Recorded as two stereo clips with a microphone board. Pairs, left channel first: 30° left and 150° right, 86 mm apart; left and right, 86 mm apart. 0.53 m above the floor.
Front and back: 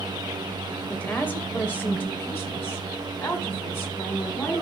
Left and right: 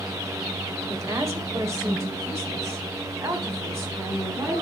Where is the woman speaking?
40° right, 2 m; by 4.6 s 30° right, 4.5 m.